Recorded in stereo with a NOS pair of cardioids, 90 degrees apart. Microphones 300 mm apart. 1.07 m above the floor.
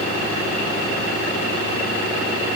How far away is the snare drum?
No snare drum in this recording.